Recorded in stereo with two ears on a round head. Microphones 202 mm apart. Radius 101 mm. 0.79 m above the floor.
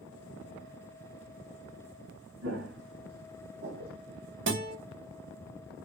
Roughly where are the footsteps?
Right.